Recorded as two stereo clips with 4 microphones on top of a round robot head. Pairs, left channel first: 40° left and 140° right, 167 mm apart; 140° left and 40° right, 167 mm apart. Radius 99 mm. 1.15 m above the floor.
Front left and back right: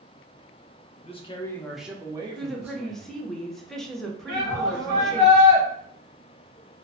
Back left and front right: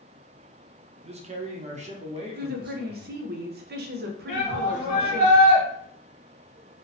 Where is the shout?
170° right, 0.9 m.